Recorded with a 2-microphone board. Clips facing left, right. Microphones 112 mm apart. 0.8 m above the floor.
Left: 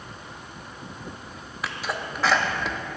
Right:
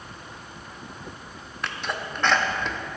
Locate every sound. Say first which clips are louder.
1.6 s a sneeze: even; 5° left (ahead or behind), 0.8 m